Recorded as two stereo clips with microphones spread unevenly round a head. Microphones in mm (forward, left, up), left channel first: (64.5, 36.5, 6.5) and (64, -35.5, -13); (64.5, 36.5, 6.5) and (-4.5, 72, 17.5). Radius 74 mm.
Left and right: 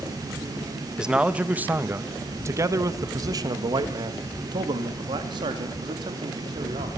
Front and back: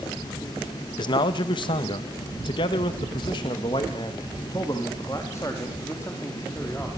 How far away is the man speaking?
About 1.5 m.